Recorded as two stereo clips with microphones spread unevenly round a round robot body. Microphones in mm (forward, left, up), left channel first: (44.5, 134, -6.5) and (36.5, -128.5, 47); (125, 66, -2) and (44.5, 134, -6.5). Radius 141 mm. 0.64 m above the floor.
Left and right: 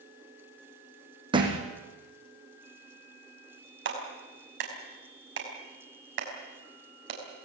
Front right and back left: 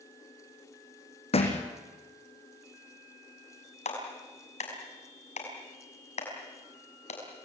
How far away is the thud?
About 4.5 m.